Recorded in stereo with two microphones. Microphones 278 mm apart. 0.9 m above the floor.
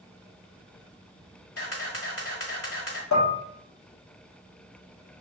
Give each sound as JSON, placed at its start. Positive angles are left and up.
{"t": 1.6, "sound": "a camera shutter", "side_deg": 55, "distance_m": 1.1}
{"t": 3.1, "sound": "dishes clattering", "side_deg": 85, "distance_m": 0.9}